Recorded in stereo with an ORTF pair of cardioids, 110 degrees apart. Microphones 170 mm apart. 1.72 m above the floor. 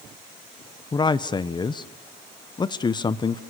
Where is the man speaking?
25° left, 1.1 m.